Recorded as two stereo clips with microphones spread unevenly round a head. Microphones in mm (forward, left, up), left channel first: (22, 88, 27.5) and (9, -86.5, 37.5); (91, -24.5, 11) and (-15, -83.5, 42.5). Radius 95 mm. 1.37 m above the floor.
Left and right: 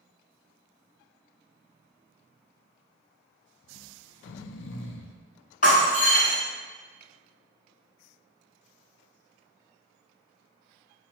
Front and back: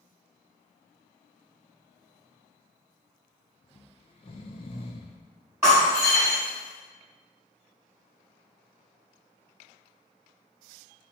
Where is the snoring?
80° left, 0.8 m.